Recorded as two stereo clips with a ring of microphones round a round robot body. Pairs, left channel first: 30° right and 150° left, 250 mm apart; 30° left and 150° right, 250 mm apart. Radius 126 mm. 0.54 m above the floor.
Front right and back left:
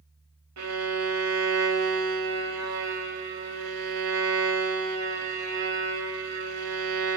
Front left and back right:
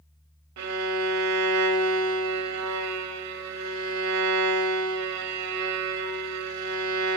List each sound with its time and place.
0.6 s a violin: straight behind, 0.9 m